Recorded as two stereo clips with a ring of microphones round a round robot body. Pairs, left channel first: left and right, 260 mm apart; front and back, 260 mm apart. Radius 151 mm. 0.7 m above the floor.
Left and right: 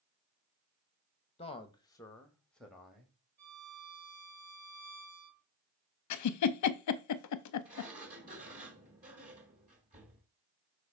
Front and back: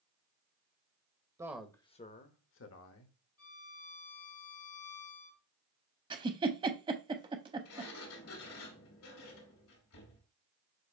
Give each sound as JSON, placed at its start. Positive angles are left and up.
{"t": 1.4, "sound": "a man speaking", "azimuth_deg": 120, "distance_m": 0.8}
{"t": 3.4, "sound": "a violin", "azimuth_deg": -30, "distance_m": 2.0}
{"t": 6.1, "sound": "a giggle", "azimuth_deg": 105, "distance_m": 0.5}
{"t": 7.7, "sound": "a sliding door", "azimuth_deg": -25, "distance_m": 2.5}